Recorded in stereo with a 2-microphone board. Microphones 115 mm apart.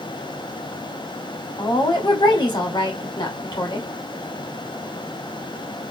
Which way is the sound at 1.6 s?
40° left (ahead or behind).